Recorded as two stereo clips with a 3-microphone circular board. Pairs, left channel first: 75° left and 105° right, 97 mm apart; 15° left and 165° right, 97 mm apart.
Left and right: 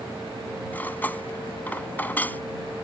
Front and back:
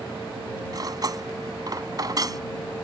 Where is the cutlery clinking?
150° left.